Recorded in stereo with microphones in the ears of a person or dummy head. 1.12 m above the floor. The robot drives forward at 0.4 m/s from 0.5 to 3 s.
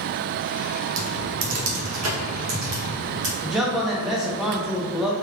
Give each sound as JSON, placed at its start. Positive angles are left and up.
{"t": 1.0, "sound": "typing on a keyboard", "side_deg": -75, "distance_m": 0.9}
{"t": 3.4, "sound": "a man speaking", "side_deg": -5, "distance_m": 0.6}